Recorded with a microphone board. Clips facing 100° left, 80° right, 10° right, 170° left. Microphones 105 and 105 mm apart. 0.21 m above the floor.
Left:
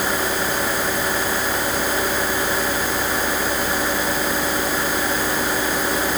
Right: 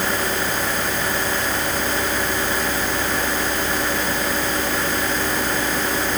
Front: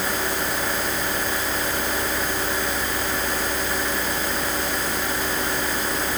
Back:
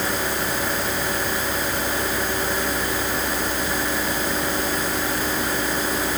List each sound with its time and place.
Only background noise.